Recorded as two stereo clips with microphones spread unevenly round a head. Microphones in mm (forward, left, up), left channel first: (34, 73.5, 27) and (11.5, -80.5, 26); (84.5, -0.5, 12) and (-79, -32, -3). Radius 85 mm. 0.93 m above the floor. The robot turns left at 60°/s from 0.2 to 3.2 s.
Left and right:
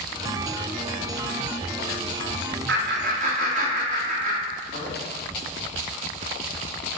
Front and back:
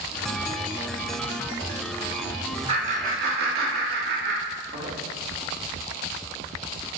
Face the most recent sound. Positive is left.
turn(degrees=-140)